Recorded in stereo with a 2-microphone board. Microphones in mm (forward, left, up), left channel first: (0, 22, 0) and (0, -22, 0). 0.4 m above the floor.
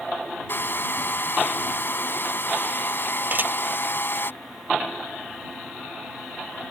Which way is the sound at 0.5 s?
55° left (ahead or behind).